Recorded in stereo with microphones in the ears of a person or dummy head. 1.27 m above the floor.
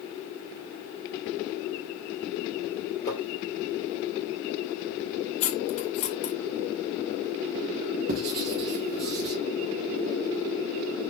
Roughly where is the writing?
Right.